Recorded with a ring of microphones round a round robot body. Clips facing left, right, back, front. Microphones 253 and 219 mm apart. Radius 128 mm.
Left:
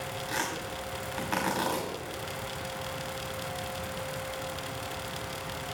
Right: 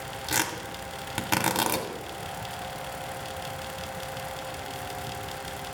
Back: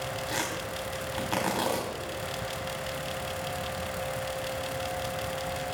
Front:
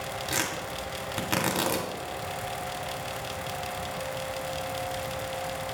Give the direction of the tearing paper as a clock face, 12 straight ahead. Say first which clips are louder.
Right 5 dB, even; 2 o'clock.